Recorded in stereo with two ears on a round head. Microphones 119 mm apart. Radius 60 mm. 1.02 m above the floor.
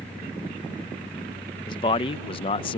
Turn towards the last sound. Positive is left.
turn(degrees=40)  # may be behind; listen again after turning